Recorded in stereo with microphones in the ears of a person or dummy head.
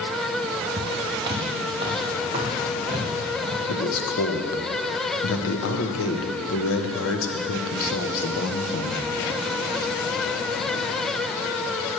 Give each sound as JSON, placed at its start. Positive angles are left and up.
{"t": 0.8, "sound": "footsteps", "side_deg": -15, "distance_m": 1.6}
{"t": 3.7, "sound": "a man speaking", "side_deg": 75, "distance_m": 1.3}